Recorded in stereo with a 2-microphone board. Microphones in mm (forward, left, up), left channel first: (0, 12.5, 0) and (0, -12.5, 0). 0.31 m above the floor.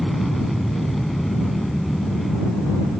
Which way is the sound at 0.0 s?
5° left (ahead or behind).